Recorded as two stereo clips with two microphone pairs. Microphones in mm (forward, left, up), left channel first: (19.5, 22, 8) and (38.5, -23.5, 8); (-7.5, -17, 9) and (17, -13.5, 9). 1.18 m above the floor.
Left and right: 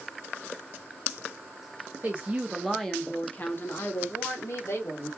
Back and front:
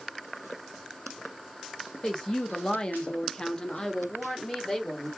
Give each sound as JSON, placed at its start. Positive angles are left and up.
{"t": 2.0, "sound": "a woman speaking", "azimuth_deg": -115, "distance_m": 0.7}